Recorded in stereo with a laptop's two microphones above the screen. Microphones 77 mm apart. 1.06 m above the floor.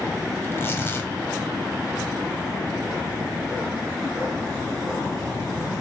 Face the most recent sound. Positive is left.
turn(degrees=30)  # may be behind; listen again after turning